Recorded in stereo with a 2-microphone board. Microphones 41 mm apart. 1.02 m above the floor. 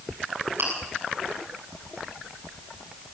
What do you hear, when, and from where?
0.6 s chewing: 65° right (ahead or behind), 7.5 m